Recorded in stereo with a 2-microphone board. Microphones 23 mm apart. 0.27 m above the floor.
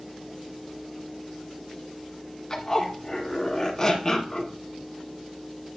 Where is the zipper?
25° left (ahead or behind), 1.7 m.